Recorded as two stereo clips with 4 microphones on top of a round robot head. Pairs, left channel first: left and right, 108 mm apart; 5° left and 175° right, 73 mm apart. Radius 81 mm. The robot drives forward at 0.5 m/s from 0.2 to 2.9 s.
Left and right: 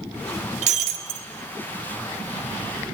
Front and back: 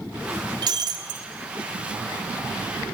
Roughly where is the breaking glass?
Behind right.